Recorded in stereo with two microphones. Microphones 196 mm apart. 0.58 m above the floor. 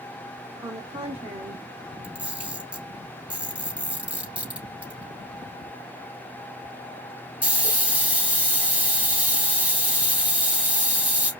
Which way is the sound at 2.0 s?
5° right (ahead or behind).